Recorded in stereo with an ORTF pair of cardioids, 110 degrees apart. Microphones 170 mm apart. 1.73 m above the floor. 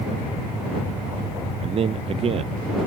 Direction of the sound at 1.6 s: 35° right.